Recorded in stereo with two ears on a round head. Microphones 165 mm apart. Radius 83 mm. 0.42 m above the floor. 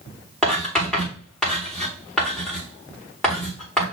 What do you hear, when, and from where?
0.4 s writing: 5° left (ahead or behind), 6 m